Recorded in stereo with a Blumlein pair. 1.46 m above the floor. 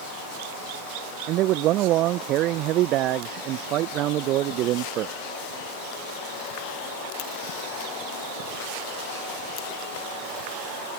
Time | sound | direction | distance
1.3 | a man speaking | 35° right | ?